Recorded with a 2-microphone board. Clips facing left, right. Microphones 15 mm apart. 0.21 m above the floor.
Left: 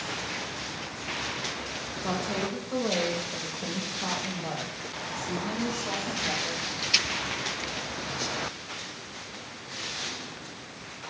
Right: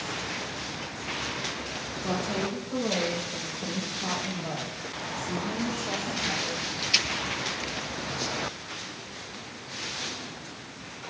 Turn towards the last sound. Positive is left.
turn(degrees=60)  # may be behind; listen again after turning